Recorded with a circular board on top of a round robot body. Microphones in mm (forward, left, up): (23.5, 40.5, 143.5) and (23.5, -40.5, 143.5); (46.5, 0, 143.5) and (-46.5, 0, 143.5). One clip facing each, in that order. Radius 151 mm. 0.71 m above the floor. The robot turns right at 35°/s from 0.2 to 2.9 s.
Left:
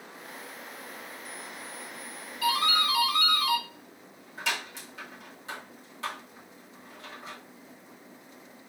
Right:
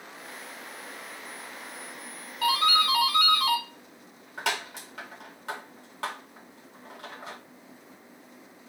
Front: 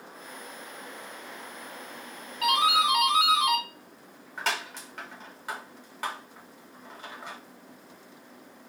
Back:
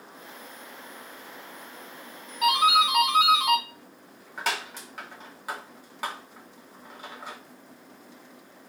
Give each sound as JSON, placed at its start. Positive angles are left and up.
{"t": 2.4, "sound": "a doorbell", "azimuth_deg": -120, "distance_m": 3.5}